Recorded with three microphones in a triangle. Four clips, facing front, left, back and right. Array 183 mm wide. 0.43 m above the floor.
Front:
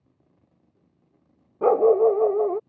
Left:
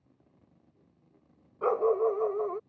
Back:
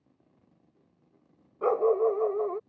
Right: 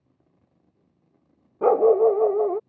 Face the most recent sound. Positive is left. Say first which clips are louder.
# right 9 dB, front 7 dB
turn(degrees=-60)